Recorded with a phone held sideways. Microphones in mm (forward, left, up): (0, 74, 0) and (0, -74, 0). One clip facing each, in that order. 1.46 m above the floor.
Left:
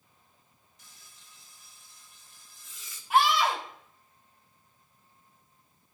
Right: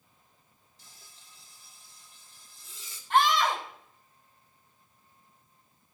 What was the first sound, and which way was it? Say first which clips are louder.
Frying: right 2 dB; 35° right (ahead or behind).